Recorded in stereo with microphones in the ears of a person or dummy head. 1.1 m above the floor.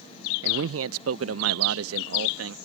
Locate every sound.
0.4 s a man speaking: 55° right (ahead or behind); by 2.5 s 65° right (ahead or behind)